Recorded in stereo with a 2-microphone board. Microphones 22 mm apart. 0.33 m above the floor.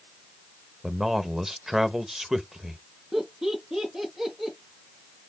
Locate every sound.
0.8 s a man speaking: 15° right (ahead or behind), 0.9 m
3.1 s laughter: 25° right (ahead or behind), 5.5 m